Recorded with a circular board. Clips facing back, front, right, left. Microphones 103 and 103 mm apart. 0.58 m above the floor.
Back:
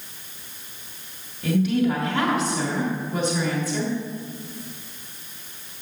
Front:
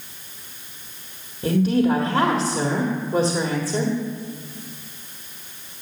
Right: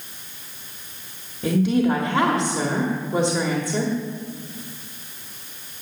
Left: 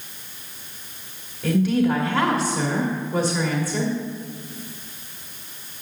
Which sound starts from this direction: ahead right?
A woman speaking, at 1.4 s.